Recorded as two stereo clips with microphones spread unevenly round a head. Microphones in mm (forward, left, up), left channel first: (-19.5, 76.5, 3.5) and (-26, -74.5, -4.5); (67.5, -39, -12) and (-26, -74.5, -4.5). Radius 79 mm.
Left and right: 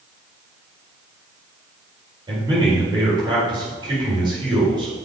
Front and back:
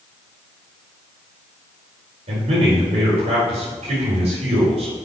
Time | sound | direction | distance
2.3 | a man speaking | 155° right | 4.5 m